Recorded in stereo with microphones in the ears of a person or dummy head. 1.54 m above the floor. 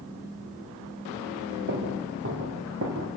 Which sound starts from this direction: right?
Footsteps, at 1.7 s.